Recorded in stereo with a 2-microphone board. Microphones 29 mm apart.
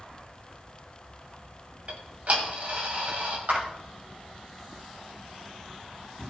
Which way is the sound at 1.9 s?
55° right (ahead or behind).